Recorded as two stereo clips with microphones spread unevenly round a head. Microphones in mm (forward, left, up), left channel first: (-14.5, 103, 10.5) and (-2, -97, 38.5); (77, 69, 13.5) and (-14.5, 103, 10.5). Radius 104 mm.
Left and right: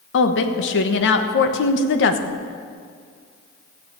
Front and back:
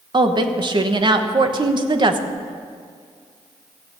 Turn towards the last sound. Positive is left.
turn(degrees=125)